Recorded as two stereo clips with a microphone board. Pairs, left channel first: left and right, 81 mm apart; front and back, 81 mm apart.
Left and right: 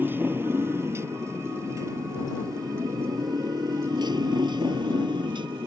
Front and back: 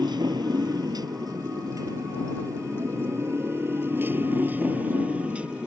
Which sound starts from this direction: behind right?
A motorcycle, at 0.0 s.